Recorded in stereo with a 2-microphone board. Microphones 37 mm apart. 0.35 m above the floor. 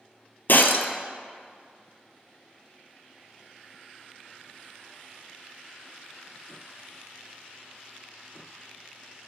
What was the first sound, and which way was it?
Breaking glass, 65° left (ahead or behind).